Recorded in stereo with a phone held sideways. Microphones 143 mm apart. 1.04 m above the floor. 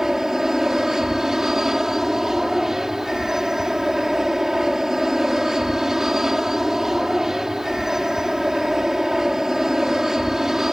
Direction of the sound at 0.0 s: 5° right (ahead or behind).